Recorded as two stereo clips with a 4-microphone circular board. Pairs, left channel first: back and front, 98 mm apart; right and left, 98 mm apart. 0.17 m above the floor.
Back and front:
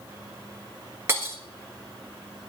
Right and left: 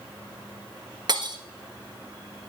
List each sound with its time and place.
1.1 s breaking glass: 60° left, 1.4 m